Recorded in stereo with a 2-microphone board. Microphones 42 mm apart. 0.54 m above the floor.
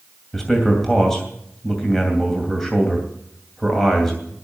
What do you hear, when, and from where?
0.3 s a man speaking: 10° left (ahead or behind), 2.5 m